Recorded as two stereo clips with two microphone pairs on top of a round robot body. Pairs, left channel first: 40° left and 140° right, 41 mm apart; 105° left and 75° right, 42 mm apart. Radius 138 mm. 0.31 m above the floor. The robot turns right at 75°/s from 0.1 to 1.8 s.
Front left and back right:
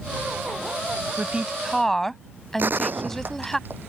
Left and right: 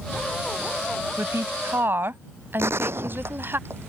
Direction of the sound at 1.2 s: 90° right.